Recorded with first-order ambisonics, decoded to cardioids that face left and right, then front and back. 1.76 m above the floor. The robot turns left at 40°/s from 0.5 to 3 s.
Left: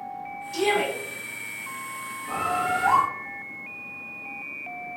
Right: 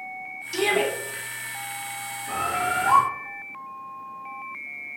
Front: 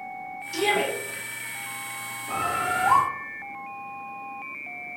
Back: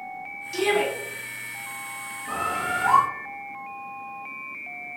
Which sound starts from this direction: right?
A shout, at 0.5 s.